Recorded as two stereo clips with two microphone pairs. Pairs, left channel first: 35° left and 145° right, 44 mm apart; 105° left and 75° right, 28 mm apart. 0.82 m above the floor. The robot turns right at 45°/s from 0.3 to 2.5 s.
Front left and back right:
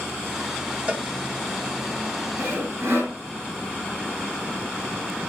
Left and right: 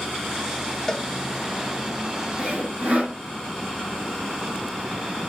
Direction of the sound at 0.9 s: 165° left.